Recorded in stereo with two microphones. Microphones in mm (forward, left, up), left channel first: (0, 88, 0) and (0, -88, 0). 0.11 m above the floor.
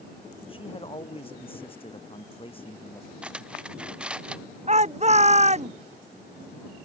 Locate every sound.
0.5 s a man speaking: 30° left (ahead or behind)
3.2 s cutlery clinking: 5° right (ahead or behind)
4.7 s a shout: 40° right (ahead or behind)